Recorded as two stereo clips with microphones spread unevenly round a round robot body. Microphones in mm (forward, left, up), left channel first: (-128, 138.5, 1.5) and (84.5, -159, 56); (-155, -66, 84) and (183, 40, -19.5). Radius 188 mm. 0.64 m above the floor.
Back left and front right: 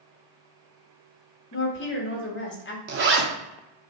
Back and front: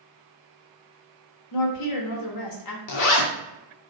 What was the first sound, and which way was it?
A woman speaking, 160° left.